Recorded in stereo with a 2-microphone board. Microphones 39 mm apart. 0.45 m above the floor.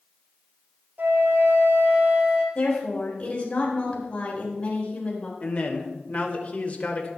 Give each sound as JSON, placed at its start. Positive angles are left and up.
{"t": 1.0, "sound": "a flute", "side_deg": -55, "distance_m": 3.0}
{"t": 2.5, "sound": "a woman speaking", "side_deg": 35, "distance_m": 3.5}
{"t": 5.4, "sound": "a man speaking", "side_deg": 40, "distance_m": 1.6}